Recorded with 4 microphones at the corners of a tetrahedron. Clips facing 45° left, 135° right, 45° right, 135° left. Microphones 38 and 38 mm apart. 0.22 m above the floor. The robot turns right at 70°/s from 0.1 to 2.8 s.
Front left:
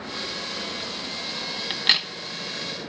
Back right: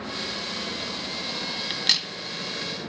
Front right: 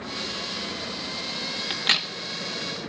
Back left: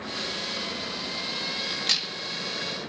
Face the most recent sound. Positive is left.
turn(degrees=55)